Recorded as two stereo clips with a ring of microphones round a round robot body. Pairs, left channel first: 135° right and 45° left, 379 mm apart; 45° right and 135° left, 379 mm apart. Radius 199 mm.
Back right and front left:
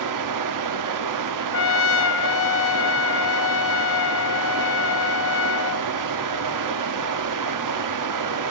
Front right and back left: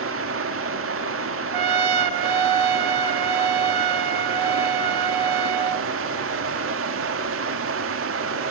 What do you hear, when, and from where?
0.0 s running water: 80° left, 1.8 m
1.5 s a trumpet: 165° left, 1.4 m